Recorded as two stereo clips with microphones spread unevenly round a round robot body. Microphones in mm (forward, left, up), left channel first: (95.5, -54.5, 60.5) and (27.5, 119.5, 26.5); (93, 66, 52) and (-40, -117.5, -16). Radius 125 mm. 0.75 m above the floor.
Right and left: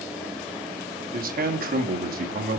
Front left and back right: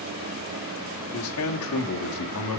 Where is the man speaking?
90° left, 1.5 m.